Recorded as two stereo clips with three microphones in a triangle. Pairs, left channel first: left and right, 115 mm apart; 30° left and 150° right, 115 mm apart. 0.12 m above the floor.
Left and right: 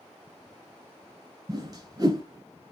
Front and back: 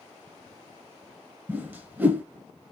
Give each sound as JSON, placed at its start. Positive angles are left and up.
{"t": 1.5, "sound": "a whoosh", "azimuth_deg": -90, "distance_m": 1.3}